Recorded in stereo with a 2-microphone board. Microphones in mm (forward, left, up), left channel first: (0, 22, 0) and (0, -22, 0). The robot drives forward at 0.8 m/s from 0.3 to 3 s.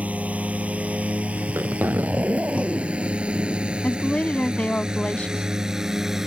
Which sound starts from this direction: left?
A woman speaking, at 3.8 s.